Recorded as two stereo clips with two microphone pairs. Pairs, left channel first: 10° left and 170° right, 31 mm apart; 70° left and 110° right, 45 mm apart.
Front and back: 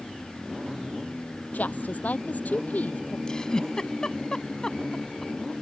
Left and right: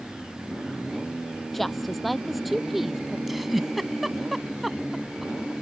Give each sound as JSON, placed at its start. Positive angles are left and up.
{"t": 1.5, "sound": "a woman speaking", "azimuth_deg": -15}
{"t": 3.3, "sound": "a giggle", "azimuth_deg": -25}